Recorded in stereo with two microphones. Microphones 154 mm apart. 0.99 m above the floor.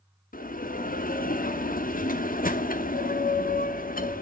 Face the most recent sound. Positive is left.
turn(degrees=65)  # may be behind; listen again after turning